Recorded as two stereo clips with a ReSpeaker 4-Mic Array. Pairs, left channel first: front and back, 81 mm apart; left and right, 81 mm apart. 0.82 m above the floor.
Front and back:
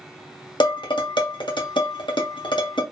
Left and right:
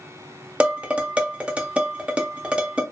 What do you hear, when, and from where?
0.6 s dishes clattering: 15° right, 0.6 m